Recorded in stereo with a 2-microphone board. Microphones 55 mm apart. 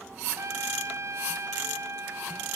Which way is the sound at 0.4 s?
60° right (ahead or behind).